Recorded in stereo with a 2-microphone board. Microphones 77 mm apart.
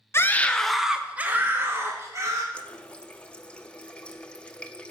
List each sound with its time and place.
0.1 s a scream: 35° left (ahead or behind), 0.7 m; by 2.4 s 40° right (ahead or behind), 1.8 m
2.5 s a running tap: 15° left (ahead or behind), 0.6 m